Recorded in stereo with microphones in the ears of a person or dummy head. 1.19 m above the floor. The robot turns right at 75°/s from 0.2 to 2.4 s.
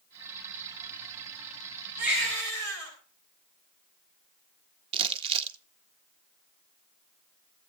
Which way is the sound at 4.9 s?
30° right (ahead or behind).